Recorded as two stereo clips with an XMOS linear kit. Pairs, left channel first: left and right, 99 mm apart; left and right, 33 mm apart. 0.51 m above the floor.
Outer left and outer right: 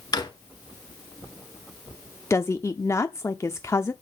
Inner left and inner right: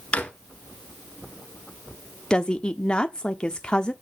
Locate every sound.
0.1 s a drawer: 45° left (ahead or behind), 1.7 m
2.3 s a woman speaking: 25° left (ahead or behind), 0.7 m